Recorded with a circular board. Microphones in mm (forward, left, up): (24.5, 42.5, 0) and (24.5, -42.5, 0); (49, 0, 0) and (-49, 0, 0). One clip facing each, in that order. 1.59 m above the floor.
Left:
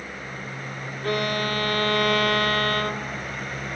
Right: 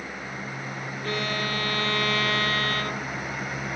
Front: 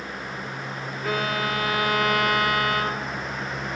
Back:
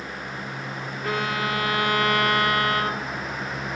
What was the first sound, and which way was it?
A violin, 90° left.